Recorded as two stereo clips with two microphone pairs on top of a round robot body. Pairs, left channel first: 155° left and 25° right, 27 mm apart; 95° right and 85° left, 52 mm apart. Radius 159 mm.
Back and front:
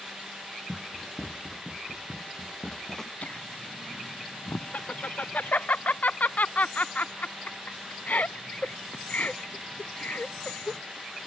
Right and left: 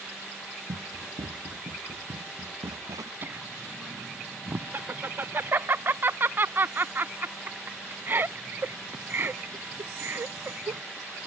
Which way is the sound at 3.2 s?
140° left.